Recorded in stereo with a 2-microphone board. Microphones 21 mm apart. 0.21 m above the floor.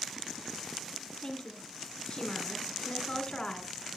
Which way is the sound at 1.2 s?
40° left (ahead or behind).